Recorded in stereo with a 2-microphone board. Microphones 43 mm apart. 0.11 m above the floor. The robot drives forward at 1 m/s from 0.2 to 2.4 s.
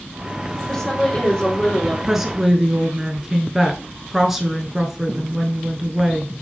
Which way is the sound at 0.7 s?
15° left (ahead or behind).